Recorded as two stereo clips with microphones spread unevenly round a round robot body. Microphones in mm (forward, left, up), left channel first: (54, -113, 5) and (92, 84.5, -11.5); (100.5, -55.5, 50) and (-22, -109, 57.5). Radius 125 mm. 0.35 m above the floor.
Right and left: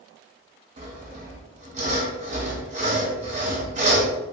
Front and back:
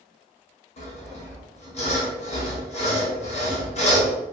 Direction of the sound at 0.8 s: 40° left.